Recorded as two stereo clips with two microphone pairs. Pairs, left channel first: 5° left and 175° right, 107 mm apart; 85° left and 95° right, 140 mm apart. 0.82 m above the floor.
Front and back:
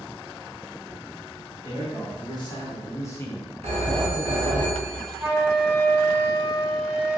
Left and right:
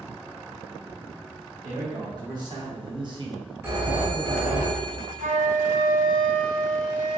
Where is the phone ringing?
165° right, 1.7 m.